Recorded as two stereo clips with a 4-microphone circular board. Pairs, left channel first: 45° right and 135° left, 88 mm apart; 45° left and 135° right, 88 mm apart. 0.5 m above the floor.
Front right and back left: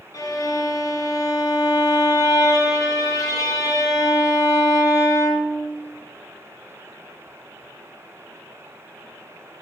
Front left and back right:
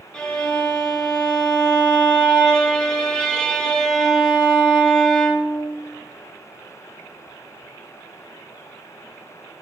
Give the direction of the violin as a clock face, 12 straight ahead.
1 o'clock.